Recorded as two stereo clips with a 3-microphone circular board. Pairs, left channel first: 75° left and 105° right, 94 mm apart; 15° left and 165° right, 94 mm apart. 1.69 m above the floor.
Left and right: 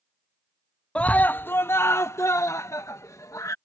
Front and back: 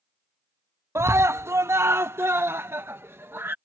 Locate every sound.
0.9 s a scream: 150° left; by 3.5 s 130° left